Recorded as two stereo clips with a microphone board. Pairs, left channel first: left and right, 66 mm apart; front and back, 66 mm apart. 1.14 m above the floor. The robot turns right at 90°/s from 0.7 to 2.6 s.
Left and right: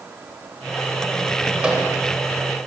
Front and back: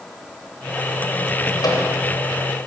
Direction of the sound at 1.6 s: 15° right.